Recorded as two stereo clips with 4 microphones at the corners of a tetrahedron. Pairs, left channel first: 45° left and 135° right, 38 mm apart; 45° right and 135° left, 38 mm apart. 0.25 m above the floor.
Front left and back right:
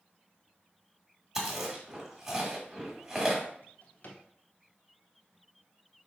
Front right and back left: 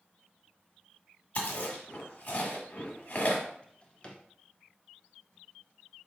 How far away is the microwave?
No microwave in this recording.